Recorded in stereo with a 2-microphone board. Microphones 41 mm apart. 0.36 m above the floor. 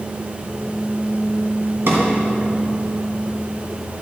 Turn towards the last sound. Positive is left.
turn(degrees=-65)  # may be behind; listen again after turning